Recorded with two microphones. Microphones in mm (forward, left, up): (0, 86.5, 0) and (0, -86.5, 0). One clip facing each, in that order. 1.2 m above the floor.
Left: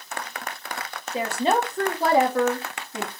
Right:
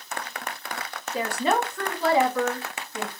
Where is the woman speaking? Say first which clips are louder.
Left 2 dB; 20° left (ahead or behind), 1.1 m; by 3.1 s 65° left (ahead or behind), 0.9 m.